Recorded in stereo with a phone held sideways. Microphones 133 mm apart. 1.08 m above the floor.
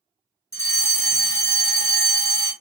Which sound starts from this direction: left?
A fire alarm, at 0.5 s.